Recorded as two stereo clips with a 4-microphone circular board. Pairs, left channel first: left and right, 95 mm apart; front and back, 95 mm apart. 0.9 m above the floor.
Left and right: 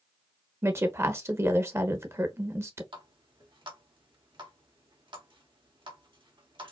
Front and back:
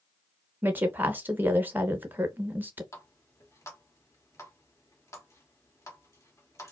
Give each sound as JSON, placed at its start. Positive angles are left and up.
{"t": 0.6, "sound": "a woman speaking", "azimuth_deg": -125, "distance_m": 0.7}
{"t": 2.9, "sound": "a running tap", "azimuth_deg": -60, "distance_m": 1.4}